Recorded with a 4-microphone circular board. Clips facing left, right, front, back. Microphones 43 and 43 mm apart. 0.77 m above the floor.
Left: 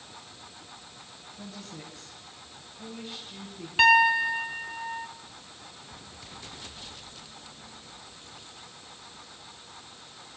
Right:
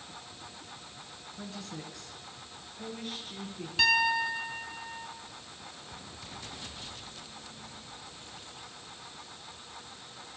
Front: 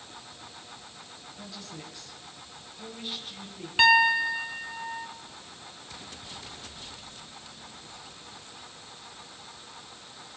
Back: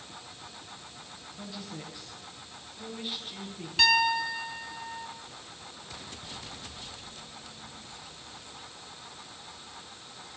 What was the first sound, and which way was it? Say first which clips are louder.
A woman speaking: right 1 dB, back 2 dB; 100° right.